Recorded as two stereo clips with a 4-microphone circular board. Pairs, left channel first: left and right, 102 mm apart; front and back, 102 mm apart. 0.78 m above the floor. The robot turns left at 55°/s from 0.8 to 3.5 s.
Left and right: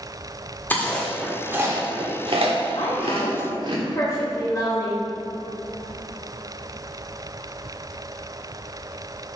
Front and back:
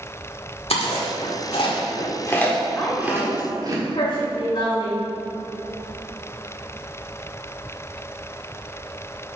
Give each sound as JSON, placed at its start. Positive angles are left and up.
{"t": 0.7, "sound": "chewing", "azimuth_deg": 20, "distance_m": 1.5}
{"t": 2.8, "sound": "a woman speaking", "azimuth_deg": 70, "distance_m": 2.5}